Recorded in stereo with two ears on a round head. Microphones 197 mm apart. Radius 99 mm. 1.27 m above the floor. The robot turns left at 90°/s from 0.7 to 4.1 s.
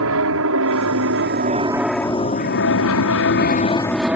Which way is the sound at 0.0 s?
65° right (ahead or behind).